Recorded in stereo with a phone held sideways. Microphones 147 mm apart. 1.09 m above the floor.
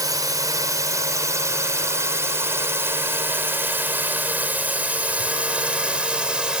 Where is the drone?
25° right (ahead or behind); by 6.6 s 5° right (ahead or behind).